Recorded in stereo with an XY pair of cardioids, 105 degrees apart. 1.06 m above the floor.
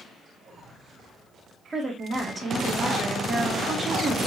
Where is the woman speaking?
25° right, 1.9 m.